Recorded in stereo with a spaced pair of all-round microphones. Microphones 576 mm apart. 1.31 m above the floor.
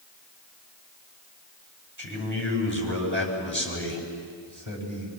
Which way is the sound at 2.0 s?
35° right (ahead or behind).